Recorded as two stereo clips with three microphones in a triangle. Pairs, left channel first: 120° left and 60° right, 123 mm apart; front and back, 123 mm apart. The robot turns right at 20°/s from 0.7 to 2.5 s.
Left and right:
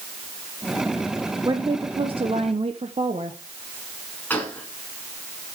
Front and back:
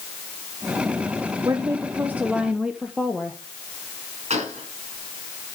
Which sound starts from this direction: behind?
A gunshot, at 4.3 s.